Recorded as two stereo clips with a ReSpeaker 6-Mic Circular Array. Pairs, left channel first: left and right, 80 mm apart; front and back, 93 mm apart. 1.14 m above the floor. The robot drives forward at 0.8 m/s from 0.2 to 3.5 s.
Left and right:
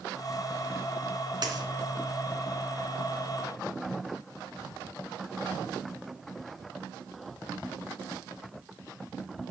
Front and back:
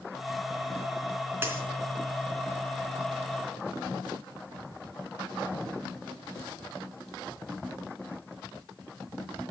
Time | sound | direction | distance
1.4 | a dropped coin | 115° right | 3.5 m